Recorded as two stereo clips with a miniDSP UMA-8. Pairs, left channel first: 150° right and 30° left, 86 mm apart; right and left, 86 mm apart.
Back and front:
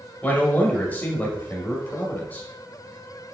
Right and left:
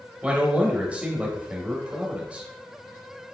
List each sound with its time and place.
0.2 s a man speaking: 155° left, 1.1 m